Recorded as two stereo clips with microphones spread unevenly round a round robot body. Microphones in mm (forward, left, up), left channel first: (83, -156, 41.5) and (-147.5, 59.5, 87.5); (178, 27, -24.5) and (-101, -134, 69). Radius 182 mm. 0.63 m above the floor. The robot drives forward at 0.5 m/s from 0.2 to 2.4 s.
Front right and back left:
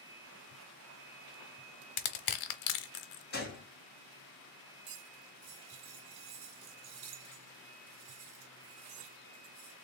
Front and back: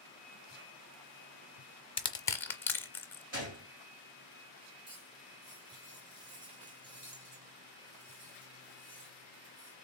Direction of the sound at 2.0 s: 50° right.